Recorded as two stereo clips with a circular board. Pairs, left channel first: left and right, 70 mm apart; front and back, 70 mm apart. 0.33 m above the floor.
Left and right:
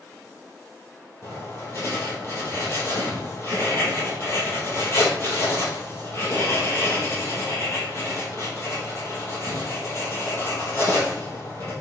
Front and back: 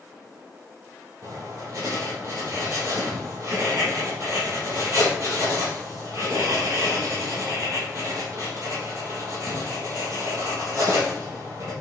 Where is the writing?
135° left, 3.5 m.